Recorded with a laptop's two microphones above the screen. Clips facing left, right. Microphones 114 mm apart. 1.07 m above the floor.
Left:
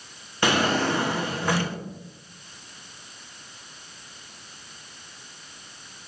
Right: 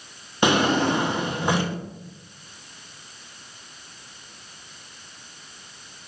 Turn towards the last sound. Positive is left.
turn(degrees=-20)  # may be behind; listen again after turning